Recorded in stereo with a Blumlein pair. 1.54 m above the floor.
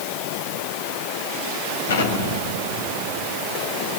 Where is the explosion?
65° left, 3.5 m.